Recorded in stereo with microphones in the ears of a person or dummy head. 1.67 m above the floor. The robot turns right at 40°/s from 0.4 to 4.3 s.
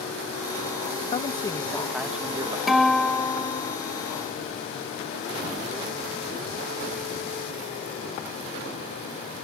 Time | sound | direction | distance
1.1 | a man speaking | 150° left | ?
2.7 | a guitar | straight ahead | ?